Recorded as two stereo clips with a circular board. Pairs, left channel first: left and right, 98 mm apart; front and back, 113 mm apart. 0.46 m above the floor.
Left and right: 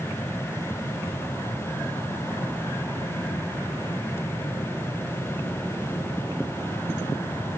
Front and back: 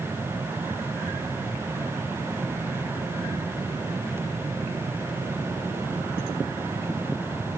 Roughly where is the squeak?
I don't hear a squeak.